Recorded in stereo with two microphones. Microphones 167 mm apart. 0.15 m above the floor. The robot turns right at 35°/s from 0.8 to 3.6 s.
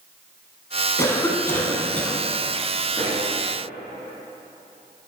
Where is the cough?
15° left (ahead or behind), 1.1 m; by 2.2 s 10° left (ahead or behind), 1.1 m.